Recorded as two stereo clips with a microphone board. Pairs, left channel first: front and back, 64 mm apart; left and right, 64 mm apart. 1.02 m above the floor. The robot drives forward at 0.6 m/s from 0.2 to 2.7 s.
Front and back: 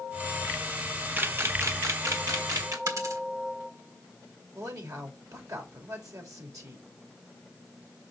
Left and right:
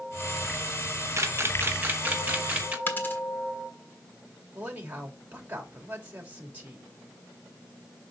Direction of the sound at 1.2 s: 125° right.